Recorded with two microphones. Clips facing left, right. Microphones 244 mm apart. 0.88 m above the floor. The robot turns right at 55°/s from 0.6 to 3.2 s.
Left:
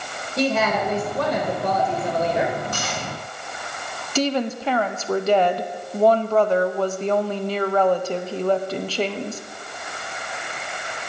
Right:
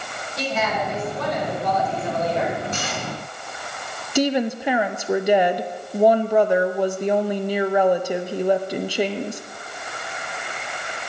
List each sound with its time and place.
0.4 s a woman speaking: 60° left, 3 m; by 2.6 s 170° left, 3 m
2.7 s cutlery clinking: 25° right (ahead or behind), 6 m; by 3.0 s 40° right (ahead or behind), 6 m
4.2 s a woman speaking: 15° right (ahead or behind), 0.7 m